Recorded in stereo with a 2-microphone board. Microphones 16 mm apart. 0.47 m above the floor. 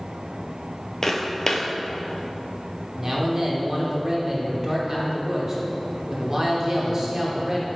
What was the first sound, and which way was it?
Footsteps, 35° left (ahead or behind).